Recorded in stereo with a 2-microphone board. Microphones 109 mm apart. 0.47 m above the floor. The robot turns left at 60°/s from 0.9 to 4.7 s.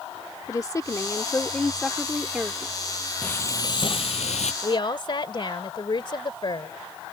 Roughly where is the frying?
Behind.